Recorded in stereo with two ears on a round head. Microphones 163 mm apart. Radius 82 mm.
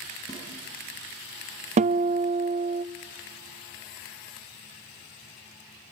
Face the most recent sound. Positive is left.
turn(degrees=-35)  # may be behind; listen again after turning